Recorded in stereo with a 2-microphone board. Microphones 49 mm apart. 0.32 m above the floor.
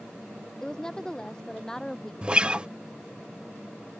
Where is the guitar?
25° right (ahead or behind).